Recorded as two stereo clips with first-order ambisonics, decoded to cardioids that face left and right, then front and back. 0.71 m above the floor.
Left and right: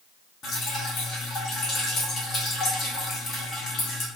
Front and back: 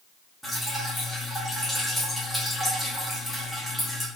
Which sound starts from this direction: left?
Dripping, at 0.4 s.